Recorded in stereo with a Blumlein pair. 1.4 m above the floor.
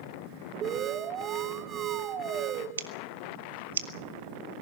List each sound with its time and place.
0.6 s an alarm: 30° right, 2 m
2.8 s scissors: 65° right, 1.6 m